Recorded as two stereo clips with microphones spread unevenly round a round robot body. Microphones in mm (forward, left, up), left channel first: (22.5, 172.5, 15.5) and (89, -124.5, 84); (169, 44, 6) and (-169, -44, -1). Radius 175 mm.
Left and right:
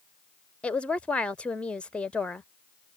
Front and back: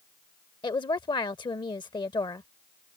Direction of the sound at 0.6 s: 70° left.